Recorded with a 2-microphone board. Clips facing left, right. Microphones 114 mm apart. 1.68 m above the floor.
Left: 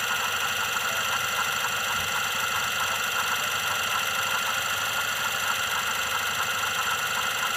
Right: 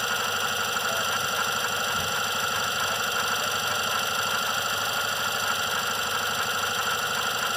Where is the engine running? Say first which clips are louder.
Right 1 dB; 25° right (ahead or behind).